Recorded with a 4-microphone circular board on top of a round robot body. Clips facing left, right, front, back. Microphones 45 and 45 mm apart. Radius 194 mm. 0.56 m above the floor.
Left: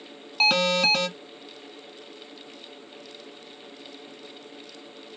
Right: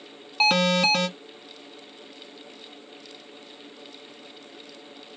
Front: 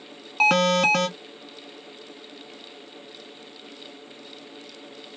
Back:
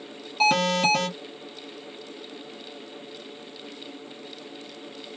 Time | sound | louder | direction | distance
0.4 | an alarm | right 1 dB, front 2 dB | 10° right | 1.6 m